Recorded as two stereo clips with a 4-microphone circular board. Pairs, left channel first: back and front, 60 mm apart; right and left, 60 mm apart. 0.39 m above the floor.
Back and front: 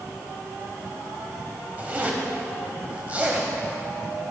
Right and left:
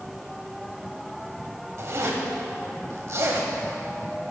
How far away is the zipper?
About 1.2 m.